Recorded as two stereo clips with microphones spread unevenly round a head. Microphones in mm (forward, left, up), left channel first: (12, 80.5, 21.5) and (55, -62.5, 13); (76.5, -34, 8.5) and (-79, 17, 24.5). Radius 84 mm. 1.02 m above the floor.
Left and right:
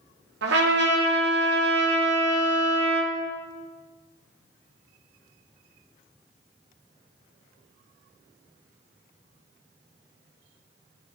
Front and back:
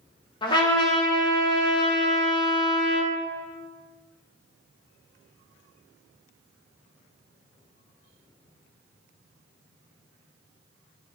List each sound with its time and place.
0.4 s a trumpet: 80° right, 1.2 m